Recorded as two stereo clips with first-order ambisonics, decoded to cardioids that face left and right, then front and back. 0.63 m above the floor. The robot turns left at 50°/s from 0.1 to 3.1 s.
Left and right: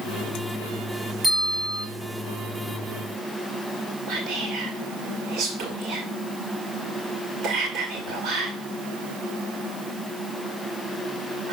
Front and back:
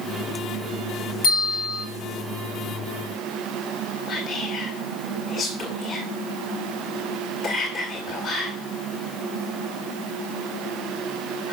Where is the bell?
15° right, 5 m; by 1.9 s 45° right, 5 m.